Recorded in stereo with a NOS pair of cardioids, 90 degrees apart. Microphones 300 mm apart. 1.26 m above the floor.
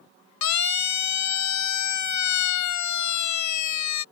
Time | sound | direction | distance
0.4 | a siren | 70° left | ?